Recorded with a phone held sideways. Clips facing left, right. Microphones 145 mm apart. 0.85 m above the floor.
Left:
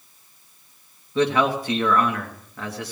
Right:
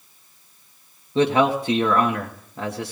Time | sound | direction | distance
1.1 | a man speaking | 25° right (ahead or behind) | 1.0 m